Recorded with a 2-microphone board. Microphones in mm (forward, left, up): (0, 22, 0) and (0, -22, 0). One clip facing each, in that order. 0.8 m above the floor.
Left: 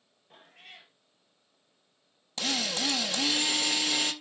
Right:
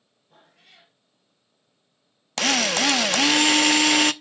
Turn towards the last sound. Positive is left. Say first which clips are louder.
# right 10 dB
turn(degrees=-70)  # may be behind; listen again after turning